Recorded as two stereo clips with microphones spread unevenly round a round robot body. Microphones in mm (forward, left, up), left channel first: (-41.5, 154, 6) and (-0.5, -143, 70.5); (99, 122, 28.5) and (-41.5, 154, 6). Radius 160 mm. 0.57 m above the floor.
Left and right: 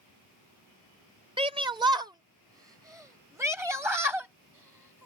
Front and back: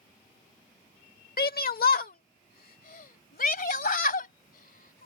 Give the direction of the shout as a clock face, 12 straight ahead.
12 o'clock.